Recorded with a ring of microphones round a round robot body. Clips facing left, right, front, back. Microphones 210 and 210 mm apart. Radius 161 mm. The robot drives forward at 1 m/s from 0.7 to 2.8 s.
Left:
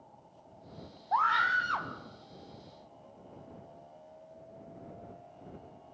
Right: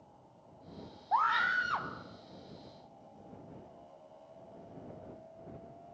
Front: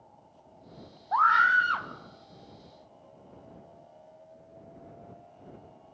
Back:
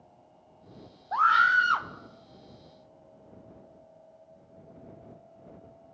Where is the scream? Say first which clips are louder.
Left 1 dB, front 1 dB; straight behind, 1.0 m.